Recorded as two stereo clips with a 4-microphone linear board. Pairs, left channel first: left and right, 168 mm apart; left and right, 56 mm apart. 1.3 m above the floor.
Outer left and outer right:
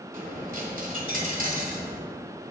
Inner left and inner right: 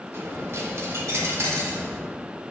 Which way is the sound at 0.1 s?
55° right (ahead or behind).